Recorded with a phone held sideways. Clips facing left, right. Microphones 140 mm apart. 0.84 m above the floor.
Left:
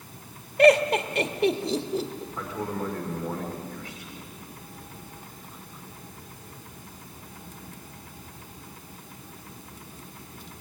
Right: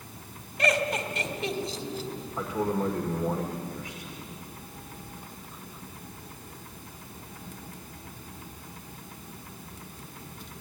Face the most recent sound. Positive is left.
turn(degrees=-15)  # may be behind; listen again after turning